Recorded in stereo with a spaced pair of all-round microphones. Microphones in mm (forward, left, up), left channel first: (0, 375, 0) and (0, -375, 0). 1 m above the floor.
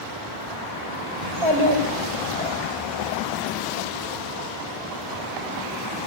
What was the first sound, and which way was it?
A child speaking, 40° right (ahead or behind).